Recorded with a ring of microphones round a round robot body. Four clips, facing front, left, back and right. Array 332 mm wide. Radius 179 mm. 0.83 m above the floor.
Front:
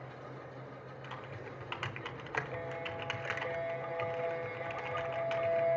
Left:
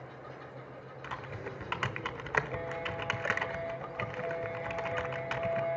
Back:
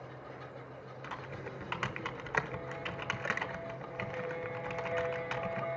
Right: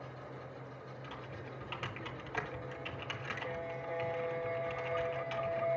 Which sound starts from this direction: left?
Typing on a keyboard, at 1.0 s.